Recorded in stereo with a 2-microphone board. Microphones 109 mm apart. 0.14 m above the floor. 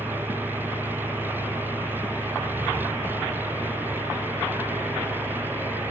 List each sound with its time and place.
0.0 s an engine running: 20° right (ahead or behind)